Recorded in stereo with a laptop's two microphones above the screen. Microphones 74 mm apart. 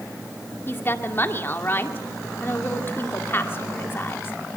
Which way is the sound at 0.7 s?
35° left (ahead or behind).